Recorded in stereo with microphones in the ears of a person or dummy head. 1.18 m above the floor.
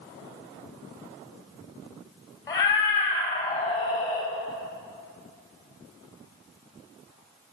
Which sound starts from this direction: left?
A cat meowing, at 2.5 s.